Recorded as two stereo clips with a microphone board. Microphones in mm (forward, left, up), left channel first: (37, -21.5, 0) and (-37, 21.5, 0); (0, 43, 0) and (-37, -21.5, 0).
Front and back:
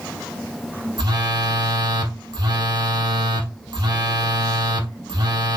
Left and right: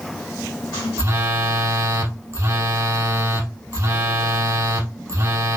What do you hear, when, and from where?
1.0 s a phone buzzing: 175° right, 1.4 m